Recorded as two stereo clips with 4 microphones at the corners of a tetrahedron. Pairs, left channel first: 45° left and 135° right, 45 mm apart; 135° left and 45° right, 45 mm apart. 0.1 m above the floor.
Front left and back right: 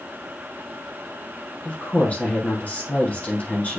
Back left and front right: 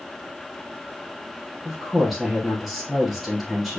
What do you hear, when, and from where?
1.6 s a woman speaking: 40° left, 1.5 m